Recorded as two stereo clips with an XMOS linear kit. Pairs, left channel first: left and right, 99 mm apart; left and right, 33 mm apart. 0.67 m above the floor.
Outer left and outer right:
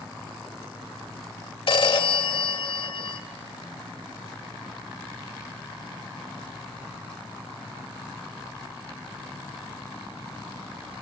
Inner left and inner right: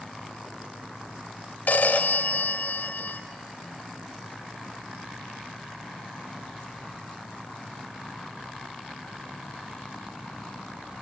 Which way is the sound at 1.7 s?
65° left (ahead or behind).